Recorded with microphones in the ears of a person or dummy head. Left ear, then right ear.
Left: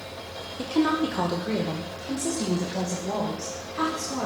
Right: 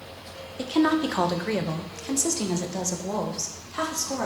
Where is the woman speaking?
10° right (ahead or behind), 0.8 m; by 4.3 s 80° right, 3 m.